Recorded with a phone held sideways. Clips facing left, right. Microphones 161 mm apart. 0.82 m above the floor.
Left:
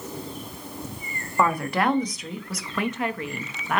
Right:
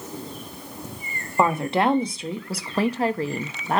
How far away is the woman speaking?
About 1.6 m.